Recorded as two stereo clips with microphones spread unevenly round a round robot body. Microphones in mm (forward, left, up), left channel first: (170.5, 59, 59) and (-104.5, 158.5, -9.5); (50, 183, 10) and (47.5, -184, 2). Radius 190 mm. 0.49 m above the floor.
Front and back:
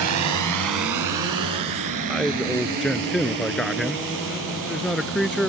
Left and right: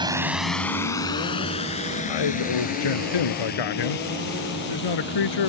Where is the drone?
170° right; by 5.5 s 155° left.